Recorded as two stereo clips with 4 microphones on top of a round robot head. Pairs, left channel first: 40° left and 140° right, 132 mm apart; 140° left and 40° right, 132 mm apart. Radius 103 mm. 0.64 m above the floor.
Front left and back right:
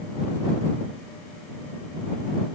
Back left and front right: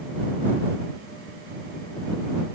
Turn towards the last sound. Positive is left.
No sound to turn to.